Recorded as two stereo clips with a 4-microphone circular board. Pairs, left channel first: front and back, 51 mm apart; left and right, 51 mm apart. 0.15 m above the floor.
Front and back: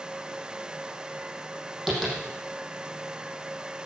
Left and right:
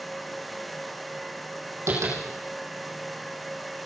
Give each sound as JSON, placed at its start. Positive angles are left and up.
{"t": 1.9, "sound": "tapping", "azimuth_deg": -90, "distance_m": 6.5}